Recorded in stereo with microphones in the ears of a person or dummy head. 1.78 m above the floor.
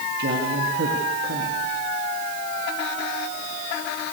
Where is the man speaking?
60° right (ahead or behind), 3.5 m.